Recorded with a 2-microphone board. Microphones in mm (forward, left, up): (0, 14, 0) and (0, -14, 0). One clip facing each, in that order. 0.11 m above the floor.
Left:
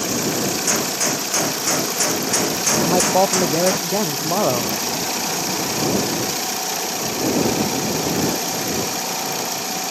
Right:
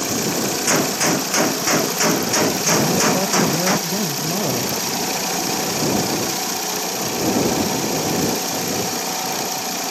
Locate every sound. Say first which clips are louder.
0.7 s a gunshot: right 3 dB; 20° right (ahead or behind)
2.8 s a man speaking: left 6 dB; 60° left (ahead or behind)